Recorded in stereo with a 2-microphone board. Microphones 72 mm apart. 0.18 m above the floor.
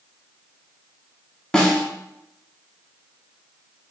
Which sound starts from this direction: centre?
A snare drum, at 1.5 s.